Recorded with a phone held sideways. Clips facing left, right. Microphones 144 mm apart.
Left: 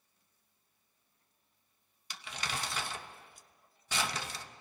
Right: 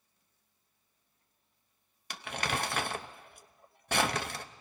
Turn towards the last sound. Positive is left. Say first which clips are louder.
# right 6 dB
turn(degrees=-60)  # may be behind; listen again after turning